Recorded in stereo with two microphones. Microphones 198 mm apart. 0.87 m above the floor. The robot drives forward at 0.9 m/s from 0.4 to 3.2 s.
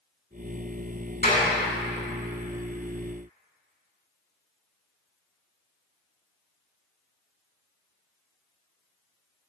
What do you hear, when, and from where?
1.2 s a clap: 45° left (ahead or behind), 5.5 m